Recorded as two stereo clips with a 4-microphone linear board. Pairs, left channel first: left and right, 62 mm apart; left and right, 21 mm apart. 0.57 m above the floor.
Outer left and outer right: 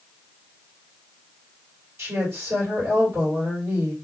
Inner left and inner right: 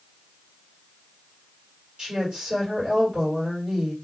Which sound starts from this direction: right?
A woman speaking, at 2.0 s.